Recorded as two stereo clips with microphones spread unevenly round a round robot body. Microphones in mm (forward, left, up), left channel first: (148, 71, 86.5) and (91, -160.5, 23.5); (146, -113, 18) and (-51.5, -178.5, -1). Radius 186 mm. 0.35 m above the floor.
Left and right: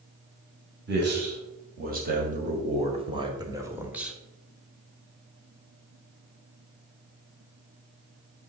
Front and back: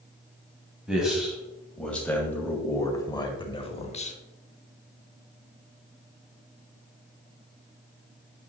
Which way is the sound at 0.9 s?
80° right.